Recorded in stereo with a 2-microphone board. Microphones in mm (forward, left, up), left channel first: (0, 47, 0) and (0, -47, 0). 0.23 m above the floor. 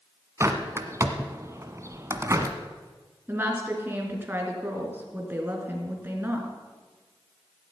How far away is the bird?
About 1.4 m.